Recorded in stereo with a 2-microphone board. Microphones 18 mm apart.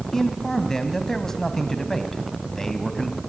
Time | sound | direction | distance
0.1 | a man speaking | 20° left (ahead or behind) | 1.9 m